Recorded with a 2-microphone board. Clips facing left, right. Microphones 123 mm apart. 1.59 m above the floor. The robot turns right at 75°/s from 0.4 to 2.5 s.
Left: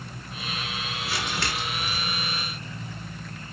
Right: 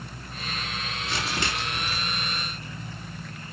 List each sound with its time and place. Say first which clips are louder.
1.0 s crumpling: right 1 dB; 170° left, 4 m; by 2.0 s 120° right, 4 m